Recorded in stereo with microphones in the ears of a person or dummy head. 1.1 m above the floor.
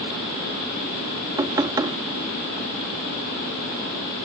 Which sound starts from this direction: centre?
Knocking, at 1.4 s.